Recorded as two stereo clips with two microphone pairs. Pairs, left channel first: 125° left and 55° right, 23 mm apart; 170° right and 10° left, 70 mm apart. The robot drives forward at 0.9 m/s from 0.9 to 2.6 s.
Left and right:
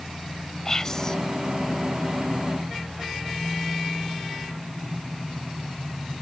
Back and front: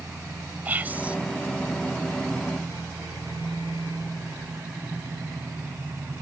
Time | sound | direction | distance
0.7 | whispering | 65° left | ?